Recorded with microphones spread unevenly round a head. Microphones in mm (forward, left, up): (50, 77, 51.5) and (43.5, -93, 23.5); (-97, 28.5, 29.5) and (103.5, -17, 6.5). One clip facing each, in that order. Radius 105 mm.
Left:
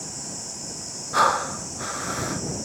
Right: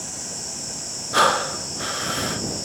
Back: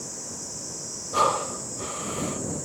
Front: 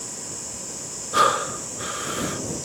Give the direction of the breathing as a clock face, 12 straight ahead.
2 o'clock.